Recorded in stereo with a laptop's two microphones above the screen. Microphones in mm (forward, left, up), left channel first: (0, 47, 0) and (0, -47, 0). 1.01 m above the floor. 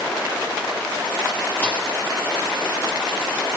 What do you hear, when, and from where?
1.6 s a thud: 20° left (ahead or behind), 5.5 m